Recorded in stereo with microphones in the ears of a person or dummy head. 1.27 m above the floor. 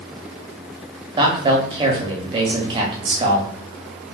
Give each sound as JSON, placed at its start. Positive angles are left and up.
{"t": 1.2, "sound": "a man speaking", "side_deg": -25, "distance_m": 0.6}